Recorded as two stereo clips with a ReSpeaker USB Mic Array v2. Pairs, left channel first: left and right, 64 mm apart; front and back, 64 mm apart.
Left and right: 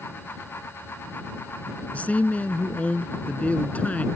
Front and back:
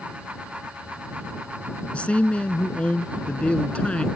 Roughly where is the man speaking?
Ahead left.